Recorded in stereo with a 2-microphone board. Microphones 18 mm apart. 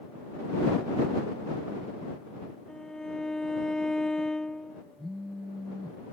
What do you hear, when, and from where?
2.7 s a violin: 40° left (ahead or behind)
5.0 s a phone buzzing: 10° right (ahead or behind)